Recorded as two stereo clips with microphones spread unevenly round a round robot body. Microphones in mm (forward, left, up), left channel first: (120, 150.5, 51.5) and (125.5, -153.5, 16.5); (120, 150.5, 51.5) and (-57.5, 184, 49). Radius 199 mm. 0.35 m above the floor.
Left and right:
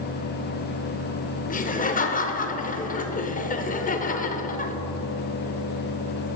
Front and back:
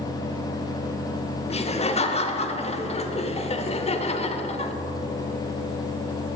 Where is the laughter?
30° left, 1.0 m.